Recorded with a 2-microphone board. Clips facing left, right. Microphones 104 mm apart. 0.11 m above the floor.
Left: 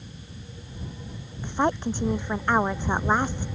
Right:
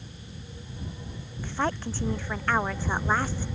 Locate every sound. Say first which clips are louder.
1.4 s a woman speaking: left 5 dB; 15° left (ahead or behind)